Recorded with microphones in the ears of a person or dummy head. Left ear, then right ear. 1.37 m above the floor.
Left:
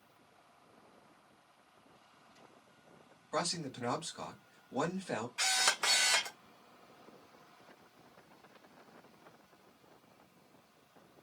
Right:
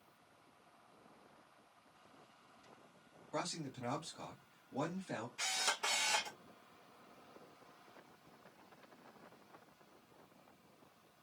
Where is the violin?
No violin in this recording.